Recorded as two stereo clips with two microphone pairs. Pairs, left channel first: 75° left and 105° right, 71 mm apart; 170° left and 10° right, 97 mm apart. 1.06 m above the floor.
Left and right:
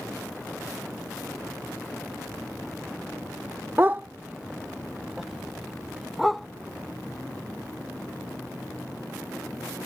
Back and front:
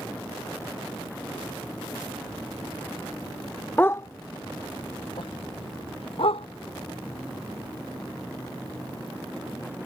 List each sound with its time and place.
3.8 s a dog barking: 130° right; by 6.5 s 165° left